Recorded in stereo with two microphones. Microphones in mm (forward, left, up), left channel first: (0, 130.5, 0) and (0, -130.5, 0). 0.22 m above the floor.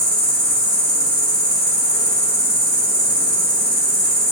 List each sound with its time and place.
0.0 s an insect: 15° left (ahead or behind), 1.7 m